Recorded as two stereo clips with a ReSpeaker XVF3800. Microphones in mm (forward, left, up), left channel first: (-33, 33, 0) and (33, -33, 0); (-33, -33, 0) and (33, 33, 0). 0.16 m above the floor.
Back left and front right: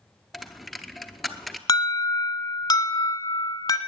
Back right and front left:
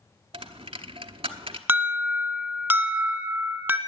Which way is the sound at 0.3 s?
45° left.